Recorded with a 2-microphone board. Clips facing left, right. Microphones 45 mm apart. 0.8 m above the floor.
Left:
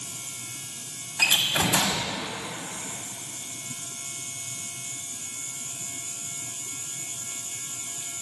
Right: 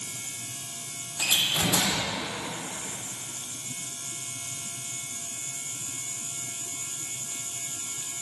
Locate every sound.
1.2 s a door slam: 85° left, 1.0 m